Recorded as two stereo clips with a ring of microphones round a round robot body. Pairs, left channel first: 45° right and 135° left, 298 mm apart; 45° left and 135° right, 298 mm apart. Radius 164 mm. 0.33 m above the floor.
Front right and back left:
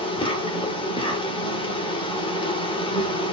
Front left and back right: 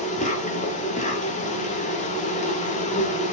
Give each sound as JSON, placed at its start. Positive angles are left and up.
{"t": 0.0, "sound": "an insect", "azimuth_deg": 10, "distance_m": 0.9}